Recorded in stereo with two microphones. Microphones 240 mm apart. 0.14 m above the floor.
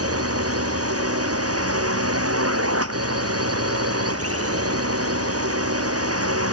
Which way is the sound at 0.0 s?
75° right (ahead or behind).